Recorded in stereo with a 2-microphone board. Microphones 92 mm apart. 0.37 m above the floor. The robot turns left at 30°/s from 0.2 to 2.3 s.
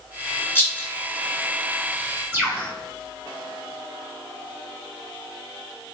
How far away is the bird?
About 1.1 m.